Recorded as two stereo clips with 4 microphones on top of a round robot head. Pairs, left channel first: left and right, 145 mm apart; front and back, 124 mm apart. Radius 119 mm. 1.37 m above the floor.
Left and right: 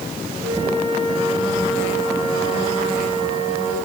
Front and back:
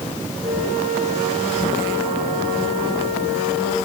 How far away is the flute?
About 8.5 m.